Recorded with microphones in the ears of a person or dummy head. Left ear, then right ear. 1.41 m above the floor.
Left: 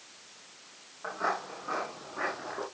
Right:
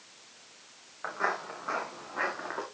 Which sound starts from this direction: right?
Footsteps, at 1.0 s.